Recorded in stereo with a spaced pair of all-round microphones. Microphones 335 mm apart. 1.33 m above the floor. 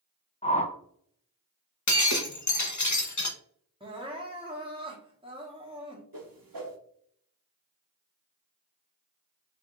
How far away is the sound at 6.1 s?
About 0.8 m.